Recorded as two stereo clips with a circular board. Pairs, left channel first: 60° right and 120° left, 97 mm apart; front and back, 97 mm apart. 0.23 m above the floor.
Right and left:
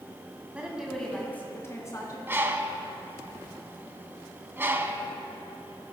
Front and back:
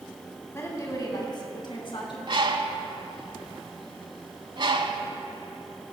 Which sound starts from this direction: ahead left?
A woman speaking, at 0.5 s.